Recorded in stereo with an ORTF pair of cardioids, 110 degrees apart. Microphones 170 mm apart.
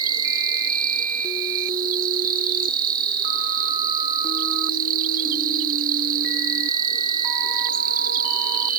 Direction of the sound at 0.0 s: 60° right.